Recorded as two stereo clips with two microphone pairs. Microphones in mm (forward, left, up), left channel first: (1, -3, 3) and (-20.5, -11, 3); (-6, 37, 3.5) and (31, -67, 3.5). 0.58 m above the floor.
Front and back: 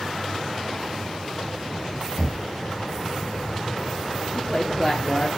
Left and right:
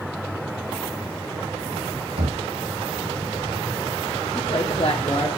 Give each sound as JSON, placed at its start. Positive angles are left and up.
{"t": 2.2, "sound": "knocking", "azimuth_deg": -55, "distance_m": 2.5}
{"t": 4.3, "sound": "a woman speaking", "azimuth_deg": 110, "distance_m": 1.0}